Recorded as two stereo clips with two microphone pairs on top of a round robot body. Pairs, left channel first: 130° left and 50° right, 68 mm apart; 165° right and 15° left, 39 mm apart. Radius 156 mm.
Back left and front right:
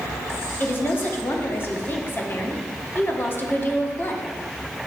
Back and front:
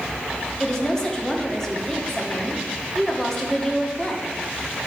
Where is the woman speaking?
135° left, 1.4 m.